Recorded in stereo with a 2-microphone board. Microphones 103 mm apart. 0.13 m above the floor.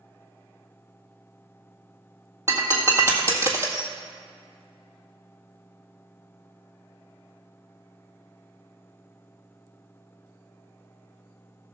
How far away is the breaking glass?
About 1.6 m.